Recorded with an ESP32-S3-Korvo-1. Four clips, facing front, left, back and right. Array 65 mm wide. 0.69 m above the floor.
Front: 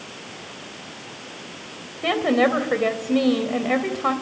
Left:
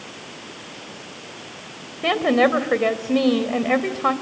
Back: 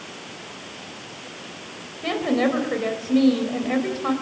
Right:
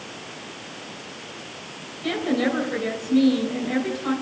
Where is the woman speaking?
65° left, 3 m.